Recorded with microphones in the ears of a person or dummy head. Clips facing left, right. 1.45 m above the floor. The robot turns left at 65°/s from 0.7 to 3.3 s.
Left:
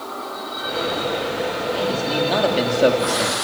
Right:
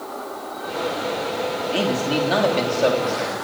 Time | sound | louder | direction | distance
1.7 | a man speaking | right 2 dB | 135° right | 3 m